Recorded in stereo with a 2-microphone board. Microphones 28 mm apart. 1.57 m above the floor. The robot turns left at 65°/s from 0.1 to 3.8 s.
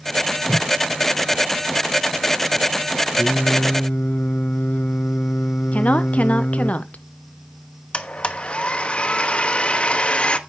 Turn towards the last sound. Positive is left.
turn(degrees=40)  # may be behind; listen again after turning